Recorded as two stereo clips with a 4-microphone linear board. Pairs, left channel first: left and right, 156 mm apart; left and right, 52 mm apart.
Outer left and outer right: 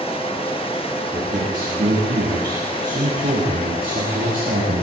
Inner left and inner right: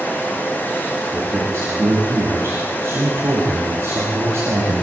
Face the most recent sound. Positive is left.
turn(degrees=-60)  # may be behind; listen again after turning